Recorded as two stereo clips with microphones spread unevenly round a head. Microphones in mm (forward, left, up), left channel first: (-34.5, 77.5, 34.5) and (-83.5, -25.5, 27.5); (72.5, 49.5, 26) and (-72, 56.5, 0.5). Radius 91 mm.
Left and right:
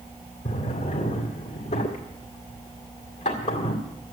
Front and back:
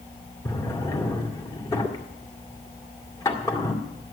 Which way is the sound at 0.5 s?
50° left.